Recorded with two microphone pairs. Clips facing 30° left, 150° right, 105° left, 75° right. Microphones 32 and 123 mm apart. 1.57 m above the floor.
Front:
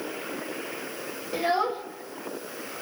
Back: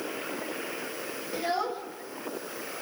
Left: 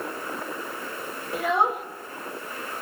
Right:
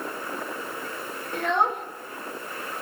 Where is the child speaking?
30° left, 0.9 m.